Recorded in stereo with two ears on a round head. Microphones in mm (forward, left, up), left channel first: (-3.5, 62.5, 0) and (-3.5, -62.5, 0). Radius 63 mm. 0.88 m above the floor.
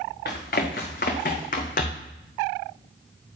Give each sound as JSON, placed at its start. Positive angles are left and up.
{"t": 0.2, "sound": "running footsteps", "side_deg": 75, "distance_m": 3.5}